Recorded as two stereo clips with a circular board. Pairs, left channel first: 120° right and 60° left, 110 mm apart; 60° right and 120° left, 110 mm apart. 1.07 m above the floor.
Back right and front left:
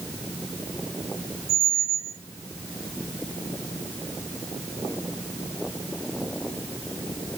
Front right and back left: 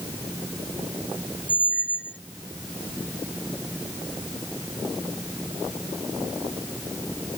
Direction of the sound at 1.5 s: 135° right.